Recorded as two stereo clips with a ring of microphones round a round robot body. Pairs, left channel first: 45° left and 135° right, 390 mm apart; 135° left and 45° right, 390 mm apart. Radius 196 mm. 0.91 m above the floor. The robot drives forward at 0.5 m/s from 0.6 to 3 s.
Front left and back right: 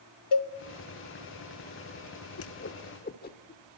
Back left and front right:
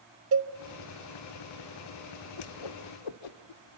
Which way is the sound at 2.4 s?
100° left.